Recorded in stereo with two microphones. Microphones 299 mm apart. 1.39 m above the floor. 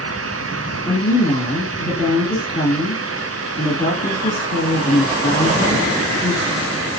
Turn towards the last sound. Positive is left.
turn(degrees=40)  # may be behind; listen again after turning